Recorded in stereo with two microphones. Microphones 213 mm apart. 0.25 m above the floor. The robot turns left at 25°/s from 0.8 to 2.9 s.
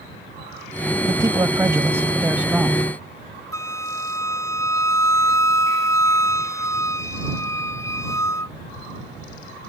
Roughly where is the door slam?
No door slam in this recording.